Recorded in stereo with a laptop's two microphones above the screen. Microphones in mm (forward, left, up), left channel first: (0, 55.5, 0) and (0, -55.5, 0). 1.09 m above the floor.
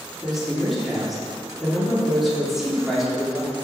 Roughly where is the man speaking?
Centre.